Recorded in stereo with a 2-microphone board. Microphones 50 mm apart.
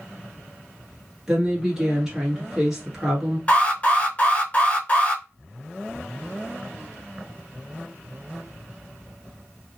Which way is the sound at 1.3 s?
10° right (ahead or behind).